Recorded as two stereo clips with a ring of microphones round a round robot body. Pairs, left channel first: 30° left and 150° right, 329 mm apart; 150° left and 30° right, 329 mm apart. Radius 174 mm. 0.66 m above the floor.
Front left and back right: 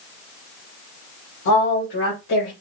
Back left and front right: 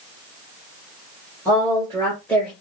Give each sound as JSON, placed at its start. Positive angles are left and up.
{"t": 1.4, "sound": "a woman speaking", "azimuth_deg": 70, "distance_m": 3.5}